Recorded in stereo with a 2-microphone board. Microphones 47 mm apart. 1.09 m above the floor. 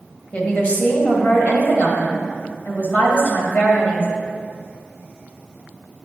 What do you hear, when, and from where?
0.3 s a woman speaking: 35° left (ahead or behind), 1.5 m